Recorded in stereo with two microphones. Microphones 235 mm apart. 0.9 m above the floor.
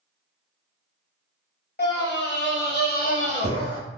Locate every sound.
1.8 s a scream: 45° left (ahead or behind), 1.2 m; by 3.8 s 20° left (ahead or behind), 1.1 m